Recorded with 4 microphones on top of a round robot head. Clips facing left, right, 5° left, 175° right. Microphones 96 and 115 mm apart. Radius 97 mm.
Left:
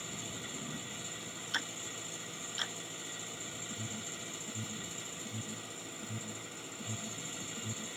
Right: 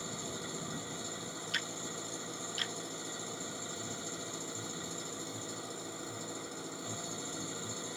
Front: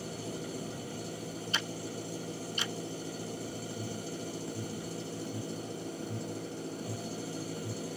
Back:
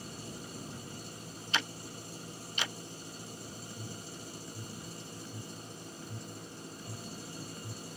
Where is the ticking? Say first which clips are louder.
Left 2 dB, back 3 dB; 155° left.